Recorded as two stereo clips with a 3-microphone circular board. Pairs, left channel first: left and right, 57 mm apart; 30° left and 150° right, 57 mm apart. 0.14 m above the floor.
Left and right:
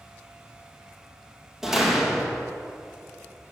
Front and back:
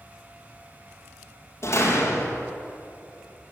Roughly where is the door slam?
Ahead.